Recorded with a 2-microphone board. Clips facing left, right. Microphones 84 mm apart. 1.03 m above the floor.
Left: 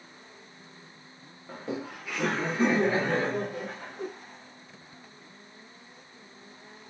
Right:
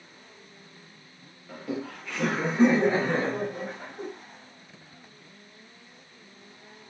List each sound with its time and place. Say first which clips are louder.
1.5 s laughter: right 1 dB; 30° left (ahead or behind), 0.8 m; by 4.1 s 45° right (ahead or behind), 1.6 m